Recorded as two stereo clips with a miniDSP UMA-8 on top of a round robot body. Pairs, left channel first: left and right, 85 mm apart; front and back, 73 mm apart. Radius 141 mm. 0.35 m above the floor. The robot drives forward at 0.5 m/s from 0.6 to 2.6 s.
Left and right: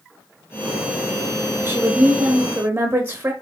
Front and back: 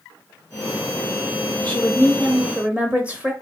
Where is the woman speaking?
50° right, 0.9 m; by 3.3 s 130° right, 0.9 m.